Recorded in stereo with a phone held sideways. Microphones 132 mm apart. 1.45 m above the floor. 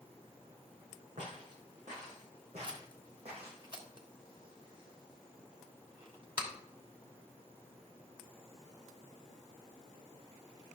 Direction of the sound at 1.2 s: 70° right (ahead or behind).